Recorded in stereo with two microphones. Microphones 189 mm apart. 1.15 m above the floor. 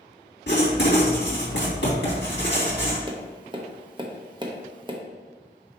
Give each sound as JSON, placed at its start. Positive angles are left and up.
{"t": 0.5, "sound": "writing", "side_deg": 75, "distance_m": 2.5}
{"t": 3.1, "sound": "tapping", "side_deg": -25, "distance_m": 1.0}